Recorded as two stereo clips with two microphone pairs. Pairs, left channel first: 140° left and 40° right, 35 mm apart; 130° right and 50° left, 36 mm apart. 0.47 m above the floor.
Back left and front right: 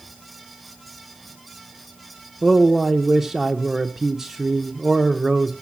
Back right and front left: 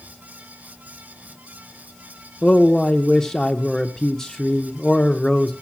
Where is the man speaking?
90° right, 0.7 m.